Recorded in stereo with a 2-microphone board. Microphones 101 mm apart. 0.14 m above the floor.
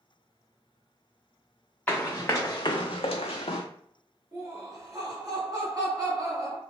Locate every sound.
1.9 s running footsteps: 15° left (ahead or behind), 0.8 m; by 3.6 s 75° left (ahead or behind), 0.6 m
4.3 s laughter: 40° right (ahead or behind), 1.4 m